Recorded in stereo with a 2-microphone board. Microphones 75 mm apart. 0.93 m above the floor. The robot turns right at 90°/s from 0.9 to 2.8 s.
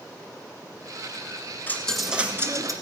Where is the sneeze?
I don't hear a sneeze.